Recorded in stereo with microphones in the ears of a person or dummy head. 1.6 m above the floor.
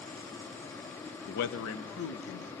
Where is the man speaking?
40° left (ahead or behind), 0.6 m; by 2.5 s 55° left (ahead or behind), 2.0 m.